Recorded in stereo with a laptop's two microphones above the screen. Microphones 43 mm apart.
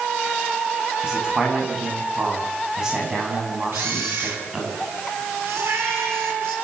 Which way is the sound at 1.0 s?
15° right (ahead or behind).